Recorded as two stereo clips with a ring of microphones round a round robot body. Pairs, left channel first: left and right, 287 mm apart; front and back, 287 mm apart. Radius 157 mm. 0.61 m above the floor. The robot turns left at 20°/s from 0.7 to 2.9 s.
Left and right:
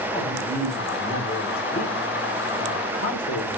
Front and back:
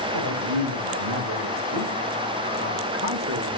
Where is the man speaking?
175° left, 3 m; by 3.6 s 130° left, 3 m.